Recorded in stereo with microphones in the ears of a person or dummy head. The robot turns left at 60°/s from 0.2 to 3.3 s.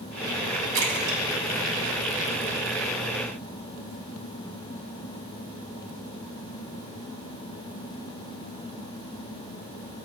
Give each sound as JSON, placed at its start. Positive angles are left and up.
{"t": 0.7, "sound": "a splash", "side_deg": -85, "distance_m": 3.5}